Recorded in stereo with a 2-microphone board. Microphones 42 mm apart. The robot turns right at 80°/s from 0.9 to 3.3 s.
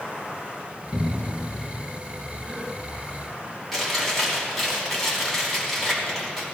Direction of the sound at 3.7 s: 5° left (ahead or behind).